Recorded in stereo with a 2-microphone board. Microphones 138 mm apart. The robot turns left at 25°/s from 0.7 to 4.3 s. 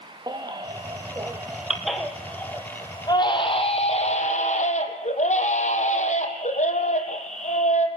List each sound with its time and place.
0.3 s a baby crying: 150° right, 3 m; by 7.9 s 120° left, 3 m